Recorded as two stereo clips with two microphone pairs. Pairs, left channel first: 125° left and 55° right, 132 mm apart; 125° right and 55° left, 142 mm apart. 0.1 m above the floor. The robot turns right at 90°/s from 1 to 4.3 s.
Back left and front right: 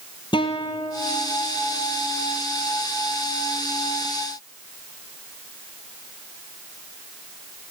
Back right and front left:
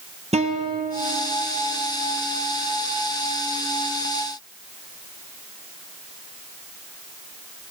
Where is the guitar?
80° left, 1.3 m; by 1.4 s 115° left, 1.3 m.